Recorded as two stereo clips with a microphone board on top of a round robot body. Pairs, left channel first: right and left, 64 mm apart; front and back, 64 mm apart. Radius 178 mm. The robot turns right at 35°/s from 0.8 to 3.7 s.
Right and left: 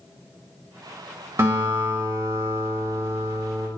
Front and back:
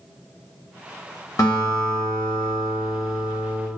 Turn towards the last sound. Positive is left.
turn(degrees=120)